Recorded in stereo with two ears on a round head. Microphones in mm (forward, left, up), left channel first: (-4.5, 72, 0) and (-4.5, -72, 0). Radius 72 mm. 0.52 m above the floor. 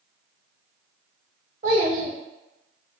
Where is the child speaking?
50° right (ahead or behind), 1.0 m.